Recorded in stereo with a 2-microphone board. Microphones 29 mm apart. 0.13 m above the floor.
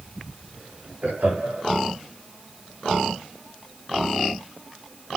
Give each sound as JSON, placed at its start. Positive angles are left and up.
{"t": 1.0, "sound": "laughter", "side_deg": -70, "distance_m": 6.5}